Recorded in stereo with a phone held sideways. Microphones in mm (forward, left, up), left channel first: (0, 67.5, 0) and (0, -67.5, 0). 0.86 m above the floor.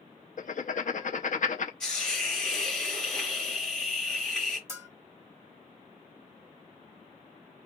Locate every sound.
0.4 s writing: 65° left (ahead or behind), 0.6 m
1.8 s a hiss: 5° left (ahead or behind), 1.5 m
4.7 s a bell: 20° right (ahead or behind), 0.9 m